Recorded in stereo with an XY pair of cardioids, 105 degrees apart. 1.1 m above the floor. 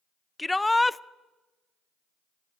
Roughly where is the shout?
Ahead.